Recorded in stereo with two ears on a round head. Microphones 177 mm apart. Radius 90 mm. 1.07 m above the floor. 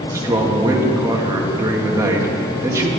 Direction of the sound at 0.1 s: 15° right (ahead or behind).